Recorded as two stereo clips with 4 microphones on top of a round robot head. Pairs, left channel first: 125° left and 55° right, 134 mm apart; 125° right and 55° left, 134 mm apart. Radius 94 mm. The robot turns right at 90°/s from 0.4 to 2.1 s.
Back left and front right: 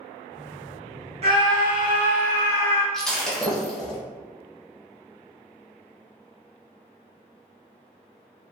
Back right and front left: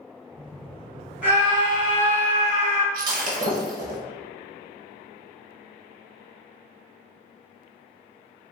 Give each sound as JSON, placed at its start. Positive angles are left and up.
{"t": 1.2, "sound": "a scream", "azimuth_deg": -20, "distance_m": 1.6}
{"t": 2.9, "sound": "breaking glass", "azimuth_deg": 40, "distance_m": 0.7}